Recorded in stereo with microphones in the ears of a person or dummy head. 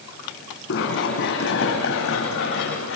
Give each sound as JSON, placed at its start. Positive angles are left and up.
{"t": 0.7, "sound": "running footsteps", "side_deg": 65, "distance_m": 4.0}